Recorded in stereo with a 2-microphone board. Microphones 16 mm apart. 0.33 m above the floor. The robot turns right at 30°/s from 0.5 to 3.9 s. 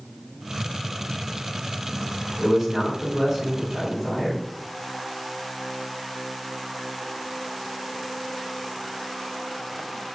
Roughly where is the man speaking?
Ahead right.